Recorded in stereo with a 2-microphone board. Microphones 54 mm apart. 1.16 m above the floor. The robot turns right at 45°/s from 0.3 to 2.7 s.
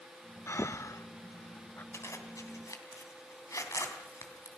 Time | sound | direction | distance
0.5 | breathing | 50° left (ahead or behind) | 0.5 m
1.9 | a zipper | 55° left (ahead or behind) | 3 m